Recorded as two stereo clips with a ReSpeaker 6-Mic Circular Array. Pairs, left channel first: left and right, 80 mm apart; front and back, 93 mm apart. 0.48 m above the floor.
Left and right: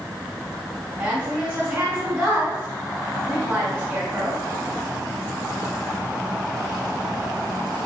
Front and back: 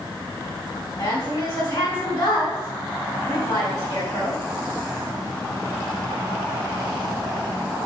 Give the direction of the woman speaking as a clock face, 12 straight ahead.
1 o'clock.